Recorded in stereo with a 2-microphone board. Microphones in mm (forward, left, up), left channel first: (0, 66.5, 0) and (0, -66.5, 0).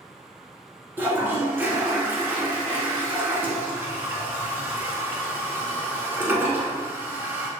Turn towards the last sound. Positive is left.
turn(degrees=-15)  # may be behind; listen again after turning